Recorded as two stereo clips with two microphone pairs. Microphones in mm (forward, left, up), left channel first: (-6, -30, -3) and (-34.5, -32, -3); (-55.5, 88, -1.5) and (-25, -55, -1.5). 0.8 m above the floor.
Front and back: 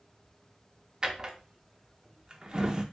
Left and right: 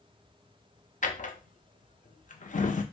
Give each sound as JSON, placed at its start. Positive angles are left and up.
{"t": 1.0, "sound": "a drawer", "azimuth_deg": 125, "distance_m": 0.5}